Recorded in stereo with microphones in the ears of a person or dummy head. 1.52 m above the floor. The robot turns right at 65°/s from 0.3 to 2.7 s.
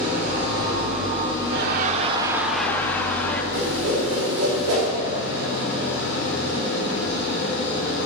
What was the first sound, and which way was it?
An engine running, 50° right.